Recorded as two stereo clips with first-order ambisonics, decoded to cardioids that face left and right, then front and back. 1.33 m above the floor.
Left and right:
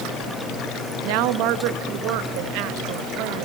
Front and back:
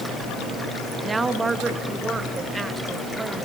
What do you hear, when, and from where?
1.0 s a woman speaking: 100° right, 1.5 m